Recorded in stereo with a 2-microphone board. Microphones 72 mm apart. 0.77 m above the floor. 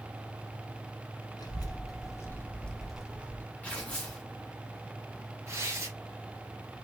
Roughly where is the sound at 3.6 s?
Centre.